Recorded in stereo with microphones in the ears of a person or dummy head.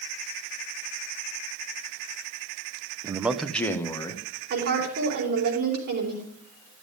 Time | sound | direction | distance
3.0 | a man speaking | 25° right (ahead or behind) | 0.5 m
4.5 | a woman speaking | 55° right (ahead or behind) | 4.5 m